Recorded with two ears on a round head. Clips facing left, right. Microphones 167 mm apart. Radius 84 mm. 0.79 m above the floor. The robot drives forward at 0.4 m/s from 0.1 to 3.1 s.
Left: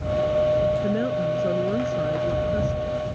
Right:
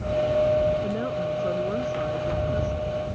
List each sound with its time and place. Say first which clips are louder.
0.8 s a woman speaking: left 4 dB; 20° left (ahead or behind); by 3.2 s 25° left (ahead or behind)